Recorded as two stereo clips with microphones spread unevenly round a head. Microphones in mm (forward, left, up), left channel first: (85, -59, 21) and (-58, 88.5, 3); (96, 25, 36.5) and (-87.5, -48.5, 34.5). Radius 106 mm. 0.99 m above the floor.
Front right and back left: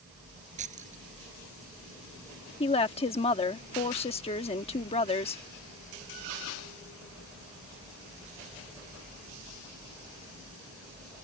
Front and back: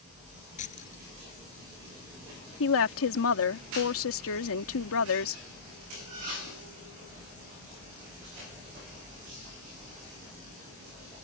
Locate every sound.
0.6 s keys jangling: 80° left
2.6 s a woman speaking: 20° left